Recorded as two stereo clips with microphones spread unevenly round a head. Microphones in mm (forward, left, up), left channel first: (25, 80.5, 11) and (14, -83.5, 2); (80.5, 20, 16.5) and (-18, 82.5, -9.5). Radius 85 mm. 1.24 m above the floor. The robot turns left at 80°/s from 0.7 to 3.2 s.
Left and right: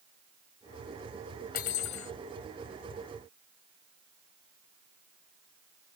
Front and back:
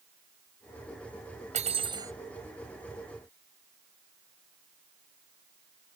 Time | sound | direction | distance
1.5 | cutlery clinking | 125° left | ?